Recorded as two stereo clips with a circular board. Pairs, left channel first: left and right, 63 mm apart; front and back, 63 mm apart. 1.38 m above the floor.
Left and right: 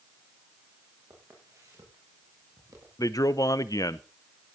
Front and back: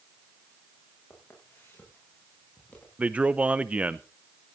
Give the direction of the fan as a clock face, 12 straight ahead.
No fan in this recording.